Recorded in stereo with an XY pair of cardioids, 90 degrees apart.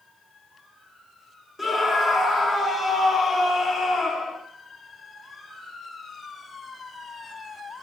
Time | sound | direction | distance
1.6 | a scream | 20° left | 4.5 m